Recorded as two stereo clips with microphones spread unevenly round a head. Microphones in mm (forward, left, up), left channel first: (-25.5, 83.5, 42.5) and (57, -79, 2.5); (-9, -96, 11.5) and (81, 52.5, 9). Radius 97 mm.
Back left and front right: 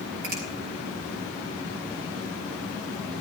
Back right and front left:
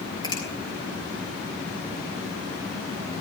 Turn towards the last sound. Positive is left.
turn(degrees=-55)